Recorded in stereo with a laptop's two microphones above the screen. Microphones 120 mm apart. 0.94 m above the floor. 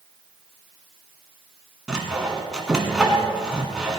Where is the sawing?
5° right (ahead or behind), 1.3 m.